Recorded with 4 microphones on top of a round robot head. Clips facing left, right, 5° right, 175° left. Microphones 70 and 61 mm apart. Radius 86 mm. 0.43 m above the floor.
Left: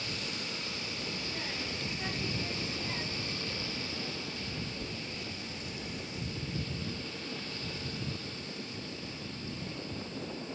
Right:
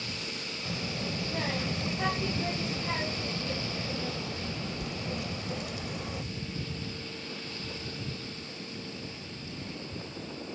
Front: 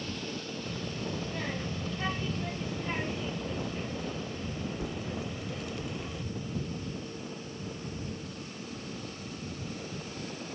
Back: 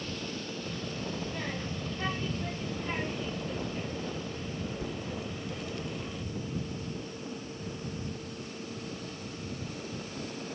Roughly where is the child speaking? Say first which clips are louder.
Right 5 dB, front 2 dB; right.